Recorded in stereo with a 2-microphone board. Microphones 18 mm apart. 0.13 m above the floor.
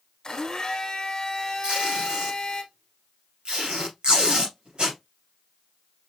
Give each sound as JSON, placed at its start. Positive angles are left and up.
{"t": 0.2, "sound": "a blender", "side_deg": 35, "distance_m": 1.3}
{"t": 1.6, "sound": "tape being pulled", "side_deg": -65, "distance_m": 3.5}